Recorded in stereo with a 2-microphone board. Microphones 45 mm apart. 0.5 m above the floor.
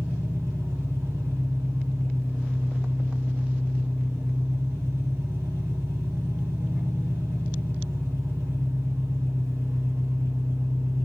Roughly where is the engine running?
Right.